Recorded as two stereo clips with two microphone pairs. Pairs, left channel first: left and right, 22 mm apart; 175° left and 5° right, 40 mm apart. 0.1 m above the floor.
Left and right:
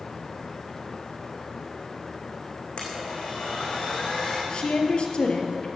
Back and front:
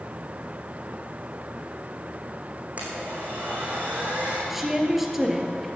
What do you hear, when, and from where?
2.8 s a blender: 45° left, 4 m
4.5 s a woman speaking: 75° left, 2 m